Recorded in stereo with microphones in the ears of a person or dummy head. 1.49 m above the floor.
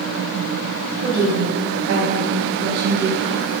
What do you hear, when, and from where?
1.0 s a woman speaking: 65° right (ahead or behind), 3.5 m; by 3.4 s 70° right (ahead or behind), 1.7 m